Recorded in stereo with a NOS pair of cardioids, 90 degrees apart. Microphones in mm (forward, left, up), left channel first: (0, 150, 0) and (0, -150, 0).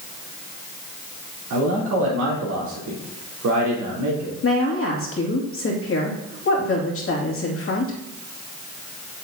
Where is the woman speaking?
45° left, 2.5 m.